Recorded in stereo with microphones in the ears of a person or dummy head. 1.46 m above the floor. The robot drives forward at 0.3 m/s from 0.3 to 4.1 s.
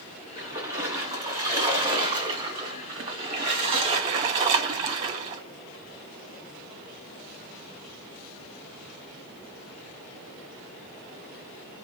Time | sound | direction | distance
0.4 | a splash | 20° right (ahead or behind) | 1.6 m